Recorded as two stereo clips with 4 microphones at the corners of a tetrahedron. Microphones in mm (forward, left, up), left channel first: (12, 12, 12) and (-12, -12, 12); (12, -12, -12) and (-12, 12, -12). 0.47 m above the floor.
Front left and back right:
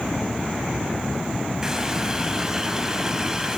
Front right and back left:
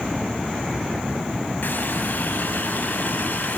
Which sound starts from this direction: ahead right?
A running tap, at 1.6 s.